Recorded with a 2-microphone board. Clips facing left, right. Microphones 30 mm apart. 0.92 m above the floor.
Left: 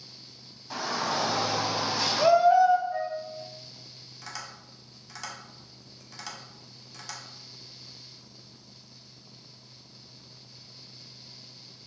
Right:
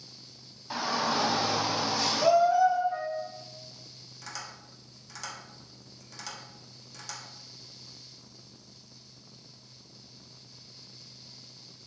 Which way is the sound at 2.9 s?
25° right (ahead or behind).